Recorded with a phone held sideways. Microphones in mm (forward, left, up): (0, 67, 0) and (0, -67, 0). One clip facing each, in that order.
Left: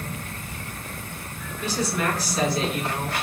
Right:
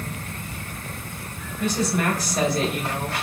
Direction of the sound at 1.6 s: 45° right (ahead or behind).